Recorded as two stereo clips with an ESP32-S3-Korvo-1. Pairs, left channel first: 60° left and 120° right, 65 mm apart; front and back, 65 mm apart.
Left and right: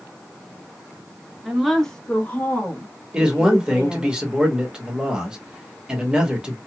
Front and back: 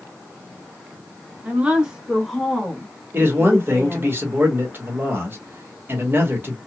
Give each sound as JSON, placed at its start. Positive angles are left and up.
{"t": 1.4, "sound": "a woman speaking", "azimuth_deg": 165, "distance_m": 1.0}
{"t": 3.1, "sound": "a man speaking", "azimuth_deg": 175, "distance_m": 1.1}